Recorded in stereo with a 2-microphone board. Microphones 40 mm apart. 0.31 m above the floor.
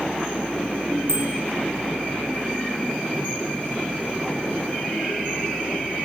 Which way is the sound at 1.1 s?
80° right.